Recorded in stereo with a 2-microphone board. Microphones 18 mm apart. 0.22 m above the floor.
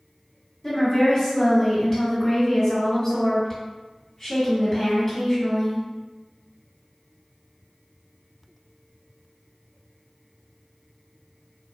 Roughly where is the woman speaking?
Left.